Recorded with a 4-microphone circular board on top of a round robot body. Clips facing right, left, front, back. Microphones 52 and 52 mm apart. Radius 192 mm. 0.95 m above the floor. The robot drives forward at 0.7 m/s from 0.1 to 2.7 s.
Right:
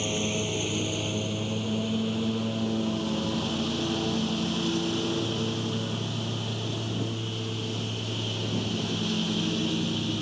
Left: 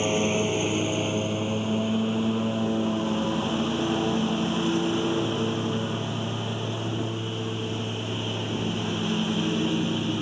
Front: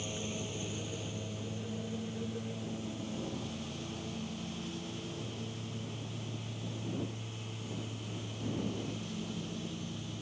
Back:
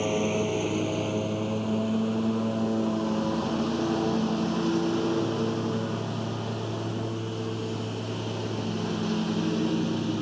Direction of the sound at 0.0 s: 145° left.